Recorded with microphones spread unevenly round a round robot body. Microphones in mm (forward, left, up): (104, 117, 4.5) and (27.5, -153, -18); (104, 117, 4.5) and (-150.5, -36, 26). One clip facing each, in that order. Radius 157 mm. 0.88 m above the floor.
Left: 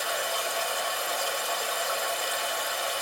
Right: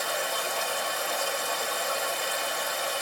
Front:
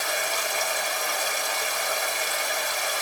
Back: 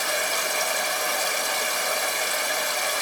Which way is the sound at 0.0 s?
160° left.